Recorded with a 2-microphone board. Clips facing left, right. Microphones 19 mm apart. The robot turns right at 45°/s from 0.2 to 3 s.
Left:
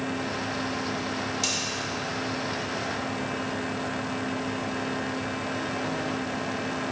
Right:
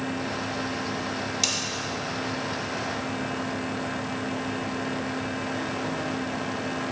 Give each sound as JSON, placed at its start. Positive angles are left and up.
{"t": 1.4, "sound": "cutlery clinking", "side_deg": -35, "distance_m": 0.6}